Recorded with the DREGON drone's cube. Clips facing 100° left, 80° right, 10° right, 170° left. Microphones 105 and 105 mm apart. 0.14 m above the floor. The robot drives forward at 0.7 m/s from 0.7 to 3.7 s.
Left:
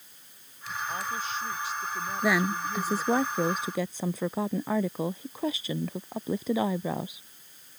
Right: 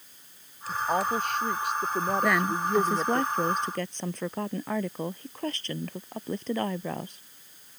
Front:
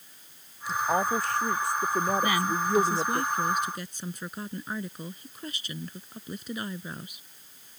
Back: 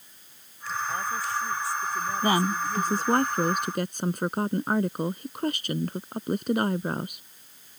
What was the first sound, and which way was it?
A woman speaking, 45° right.